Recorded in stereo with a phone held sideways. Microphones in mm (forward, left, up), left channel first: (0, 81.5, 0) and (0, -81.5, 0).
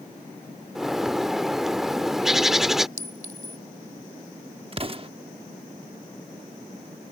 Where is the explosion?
35° right (ahead or behind).